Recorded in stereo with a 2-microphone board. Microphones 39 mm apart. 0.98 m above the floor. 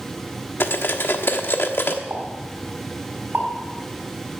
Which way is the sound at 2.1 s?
65° right (ahead or behind).